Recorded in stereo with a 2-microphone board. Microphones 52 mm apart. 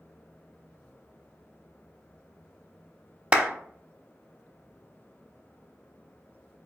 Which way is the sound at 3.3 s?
30° right (ahead or behind).